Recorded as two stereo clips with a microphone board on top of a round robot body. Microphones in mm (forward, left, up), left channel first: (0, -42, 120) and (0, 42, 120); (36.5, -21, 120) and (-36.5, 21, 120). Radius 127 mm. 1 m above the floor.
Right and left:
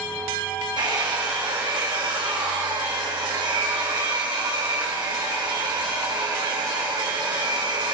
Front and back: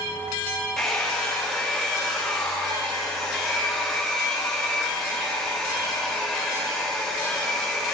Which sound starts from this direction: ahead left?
A hair dryer, at 0.8 s.